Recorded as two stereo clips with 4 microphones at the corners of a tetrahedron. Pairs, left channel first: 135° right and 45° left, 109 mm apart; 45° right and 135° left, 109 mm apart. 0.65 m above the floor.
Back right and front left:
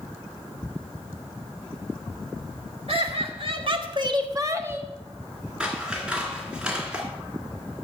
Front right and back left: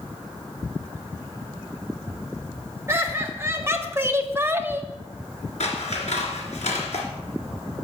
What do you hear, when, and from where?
2.9 s laughter: 70° left, 2.0 m; by 4.9 s 105° left, 0.9 m
5.6 s scissors: 35° right, 1.9 m